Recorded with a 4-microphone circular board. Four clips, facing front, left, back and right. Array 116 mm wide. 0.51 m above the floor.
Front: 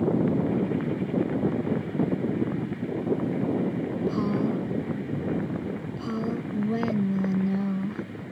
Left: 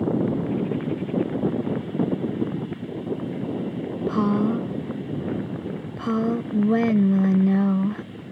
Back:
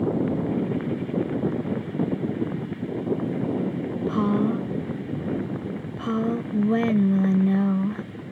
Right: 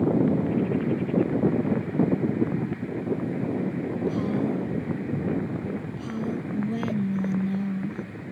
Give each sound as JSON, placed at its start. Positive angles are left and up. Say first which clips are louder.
{"t": 4.1, "sound": "a woman speaking", "louder": "left 6 dB, back 4 dB", "azimuth_deg": 115}